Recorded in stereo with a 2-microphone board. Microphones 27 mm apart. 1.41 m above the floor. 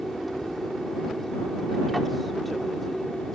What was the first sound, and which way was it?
An aircraft, 5° left (ahead or behind).